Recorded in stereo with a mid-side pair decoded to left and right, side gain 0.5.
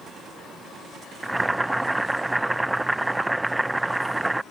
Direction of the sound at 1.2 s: 15° right.